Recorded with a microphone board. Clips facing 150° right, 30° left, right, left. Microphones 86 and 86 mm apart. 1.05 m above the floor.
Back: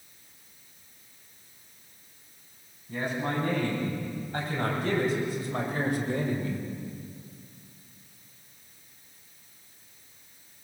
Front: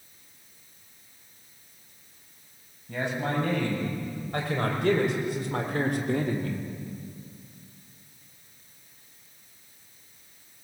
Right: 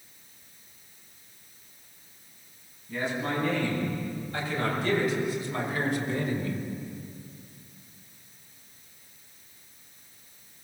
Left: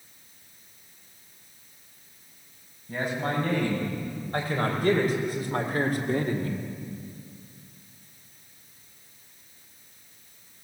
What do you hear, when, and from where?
2.9 s a man speaking: 50° left, 8.5 m